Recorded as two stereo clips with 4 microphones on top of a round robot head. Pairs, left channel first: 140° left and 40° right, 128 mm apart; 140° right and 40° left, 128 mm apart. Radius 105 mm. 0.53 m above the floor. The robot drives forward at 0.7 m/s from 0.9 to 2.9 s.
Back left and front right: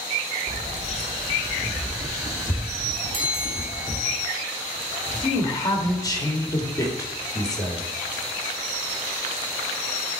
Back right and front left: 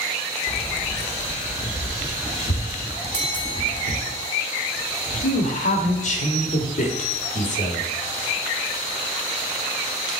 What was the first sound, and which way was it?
Keys jangling, 70° right.